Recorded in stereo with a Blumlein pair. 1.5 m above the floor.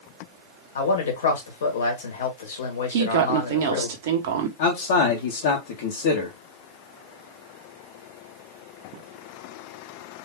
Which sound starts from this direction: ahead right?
A woman speaking, at 2.9 s.